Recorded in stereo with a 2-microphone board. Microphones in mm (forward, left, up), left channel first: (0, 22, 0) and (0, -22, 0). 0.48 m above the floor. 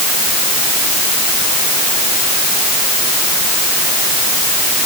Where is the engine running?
No engine running in this recording.